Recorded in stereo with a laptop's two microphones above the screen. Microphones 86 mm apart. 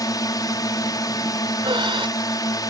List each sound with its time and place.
0.0 s a drone: 45° left (ahead or behind)
1.6 s breathing: 75° right (ahead or behind)